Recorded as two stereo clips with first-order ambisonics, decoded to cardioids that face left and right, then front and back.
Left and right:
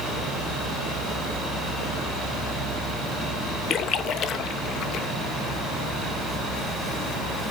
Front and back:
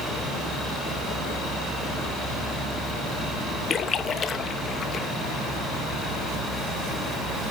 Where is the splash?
55° left, 0.7 m.